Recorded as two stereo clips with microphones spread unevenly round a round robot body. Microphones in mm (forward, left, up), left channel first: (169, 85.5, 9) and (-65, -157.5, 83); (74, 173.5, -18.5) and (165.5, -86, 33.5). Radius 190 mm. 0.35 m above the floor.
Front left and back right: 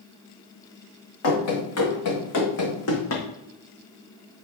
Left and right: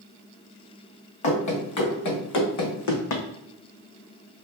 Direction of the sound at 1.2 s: 95° left.